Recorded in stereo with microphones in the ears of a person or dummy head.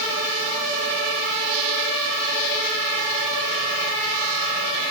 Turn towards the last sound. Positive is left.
No sound to turn to.